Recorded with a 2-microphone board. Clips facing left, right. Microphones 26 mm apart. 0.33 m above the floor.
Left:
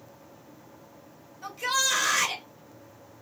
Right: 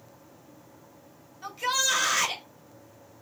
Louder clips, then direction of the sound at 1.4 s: Even; 5° right (ahead or behind).